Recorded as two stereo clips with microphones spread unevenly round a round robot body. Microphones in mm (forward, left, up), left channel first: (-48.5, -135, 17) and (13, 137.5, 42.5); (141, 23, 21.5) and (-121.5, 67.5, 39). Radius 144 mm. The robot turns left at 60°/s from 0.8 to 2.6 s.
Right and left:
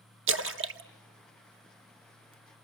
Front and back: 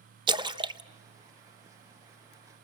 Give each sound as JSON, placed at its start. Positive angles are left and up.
{"t": 0.3, "sound": "a splash", "azimuth_deg": 100, "distance_m": 0.7}